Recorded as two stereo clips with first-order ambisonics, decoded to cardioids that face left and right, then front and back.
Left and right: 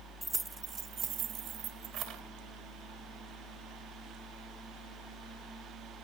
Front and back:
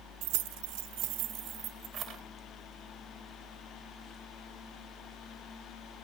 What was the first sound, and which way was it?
Keys jangling, 175° right.